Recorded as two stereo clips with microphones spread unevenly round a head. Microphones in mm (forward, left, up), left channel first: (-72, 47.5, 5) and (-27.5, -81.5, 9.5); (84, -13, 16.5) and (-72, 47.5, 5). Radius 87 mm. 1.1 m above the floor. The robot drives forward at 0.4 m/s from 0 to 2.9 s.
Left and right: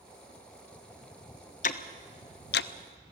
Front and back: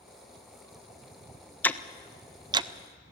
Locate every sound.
1.6 s ticking: 60° left, 0.7 m; by 3.1 s 105° left, 0.6 m